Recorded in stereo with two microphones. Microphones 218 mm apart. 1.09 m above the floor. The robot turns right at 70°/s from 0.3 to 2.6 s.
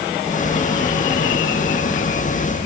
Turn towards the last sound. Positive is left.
No sound to turn to.